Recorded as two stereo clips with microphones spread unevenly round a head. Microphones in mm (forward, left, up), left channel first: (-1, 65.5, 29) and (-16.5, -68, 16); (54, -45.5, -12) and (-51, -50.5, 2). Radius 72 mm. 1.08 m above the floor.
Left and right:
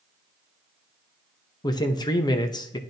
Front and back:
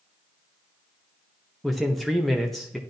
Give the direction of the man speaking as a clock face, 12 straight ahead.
10 o'clock.